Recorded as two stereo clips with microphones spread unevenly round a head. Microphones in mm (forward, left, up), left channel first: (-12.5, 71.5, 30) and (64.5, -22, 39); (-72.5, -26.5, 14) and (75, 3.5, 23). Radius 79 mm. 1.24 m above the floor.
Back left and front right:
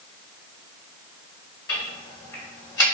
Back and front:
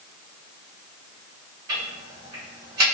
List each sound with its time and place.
1.7 s ticking: 75° left, 1.5 m